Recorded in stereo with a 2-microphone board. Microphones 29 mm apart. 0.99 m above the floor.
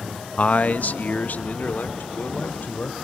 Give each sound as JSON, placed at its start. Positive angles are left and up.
{"t": 0.4, "sound": "a man speaking", "side_deg": 45, "distance_m": 0.7}